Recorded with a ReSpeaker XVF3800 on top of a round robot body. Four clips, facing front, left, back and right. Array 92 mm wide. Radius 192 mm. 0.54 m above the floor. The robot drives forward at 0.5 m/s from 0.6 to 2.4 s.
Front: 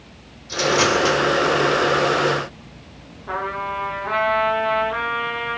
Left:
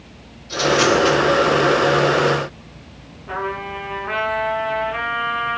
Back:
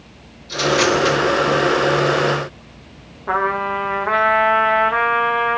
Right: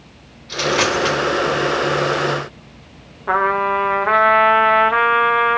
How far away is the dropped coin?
About 3.5 m.